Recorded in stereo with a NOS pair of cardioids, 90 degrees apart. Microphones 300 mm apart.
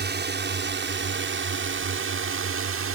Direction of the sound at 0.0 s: 35° right.